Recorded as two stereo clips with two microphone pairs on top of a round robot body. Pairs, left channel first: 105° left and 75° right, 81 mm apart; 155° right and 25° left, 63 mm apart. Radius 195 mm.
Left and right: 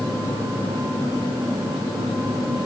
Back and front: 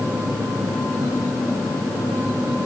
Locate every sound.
Only background noise.